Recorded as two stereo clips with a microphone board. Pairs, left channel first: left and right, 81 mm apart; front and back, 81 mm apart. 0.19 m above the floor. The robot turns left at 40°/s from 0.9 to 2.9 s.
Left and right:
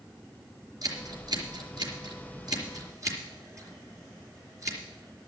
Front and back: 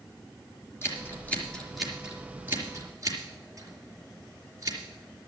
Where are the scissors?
55° right, 4 m; by 4.8 s 135° right, 4 m.